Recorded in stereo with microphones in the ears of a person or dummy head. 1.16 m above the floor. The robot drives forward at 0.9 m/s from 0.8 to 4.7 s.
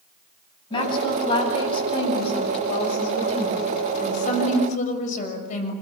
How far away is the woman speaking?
About 9 m.